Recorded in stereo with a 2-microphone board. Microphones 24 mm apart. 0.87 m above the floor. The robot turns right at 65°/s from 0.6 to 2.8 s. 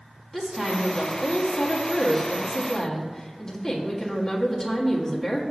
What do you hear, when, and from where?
0.3 s a woman speaking: 15° left, 1.6 m; by 5.4 s 155° left, 1.6 m